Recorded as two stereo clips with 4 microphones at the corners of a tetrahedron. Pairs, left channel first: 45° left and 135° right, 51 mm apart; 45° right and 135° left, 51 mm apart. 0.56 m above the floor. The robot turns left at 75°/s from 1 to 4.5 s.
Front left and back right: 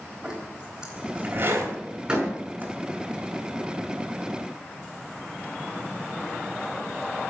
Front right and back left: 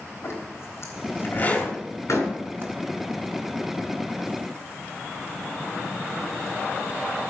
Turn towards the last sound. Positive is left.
turn(degrees=115)